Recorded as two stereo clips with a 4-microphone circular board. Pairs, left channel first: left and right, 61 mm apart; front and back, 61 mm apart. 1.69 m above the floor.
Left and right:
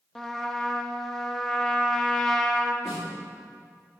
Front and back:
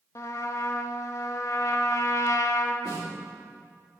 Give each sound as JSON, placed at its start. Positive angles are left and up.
{"t": 0.1, "sound": "a trumpet", "azimuth_deg": 5, "distance_m": 0.5}
{"t": 2.9, "sound": "a snare drum", "azimuth_deg": 0, "distance_m": 3.0}